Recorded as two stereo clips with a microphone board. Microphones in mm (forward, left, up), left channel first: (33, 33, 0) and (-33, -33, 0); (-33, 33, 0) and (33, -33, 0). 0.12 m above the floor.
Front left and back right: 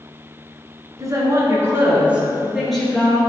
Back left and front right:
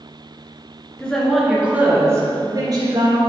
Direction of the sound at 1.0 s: 155° right.